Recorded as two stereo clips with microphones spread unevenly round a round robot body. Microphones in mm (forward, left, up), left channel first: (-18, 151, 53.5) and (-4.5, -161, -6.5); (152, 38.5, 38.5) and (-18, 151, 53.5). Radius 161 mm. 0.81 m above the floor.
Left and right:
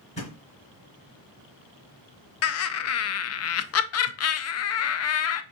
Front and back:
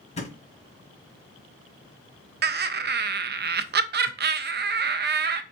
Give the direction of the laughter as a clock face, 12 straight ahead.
8 o'clock.